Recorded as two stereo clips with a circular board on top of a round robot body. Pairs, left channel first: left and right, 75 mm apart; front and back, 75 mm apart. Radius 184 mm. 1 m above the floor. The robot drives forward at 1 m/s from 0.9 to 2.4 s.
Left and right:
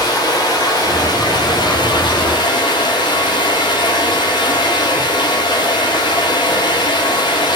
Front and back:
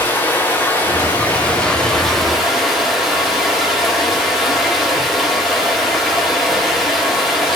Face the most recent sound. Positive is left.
turn(degrees=95)